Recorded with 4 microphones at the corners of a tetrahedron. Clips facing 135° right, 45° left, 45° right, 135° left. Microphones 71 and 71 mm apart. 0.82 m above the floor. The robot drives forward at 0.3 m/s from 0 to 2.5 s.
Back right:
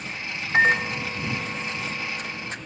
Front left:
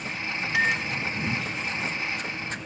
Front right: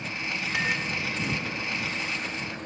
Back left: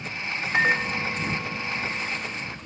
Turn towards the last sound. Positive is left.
turn(degrees=180)